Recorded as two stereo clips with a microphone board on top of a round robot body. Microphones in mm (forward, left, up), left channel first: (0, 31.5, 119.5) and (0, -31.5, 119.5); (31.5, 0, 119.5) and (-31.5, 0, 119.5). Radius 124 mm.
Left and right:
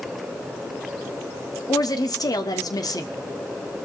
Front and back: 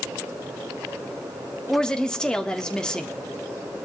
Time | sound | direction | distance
1.7 | a woman speaking | 80° left | 1.5 m